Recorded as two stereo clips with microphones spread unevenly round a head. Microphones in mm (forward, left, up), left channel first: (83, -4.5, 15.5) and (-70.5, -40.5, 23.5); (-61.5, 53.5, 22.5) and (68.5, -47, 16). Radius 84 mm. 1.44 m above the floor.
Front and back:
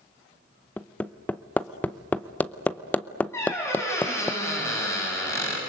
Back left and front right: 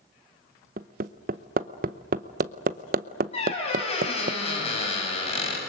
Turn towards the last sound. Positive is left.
turn(degrees=90)